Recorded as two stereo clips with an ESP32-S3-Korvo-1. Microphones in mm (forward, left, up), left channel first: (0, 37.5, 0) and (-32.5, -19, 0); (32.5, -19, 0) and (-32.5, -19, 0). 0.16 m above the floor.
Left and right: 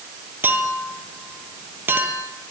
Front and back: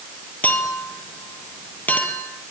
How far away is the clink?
About 3.5 m.